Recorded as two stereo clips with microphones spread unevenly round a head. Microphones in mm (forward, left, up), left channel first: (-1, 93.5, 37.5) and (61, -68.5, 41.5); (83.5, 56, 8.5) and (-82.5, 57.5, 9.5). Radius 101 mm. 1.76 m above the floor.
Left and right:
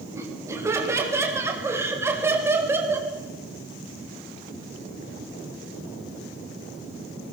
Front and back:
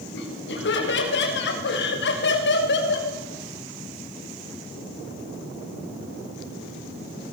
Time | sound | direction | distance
0.1 | laughter | 5° left | 8 m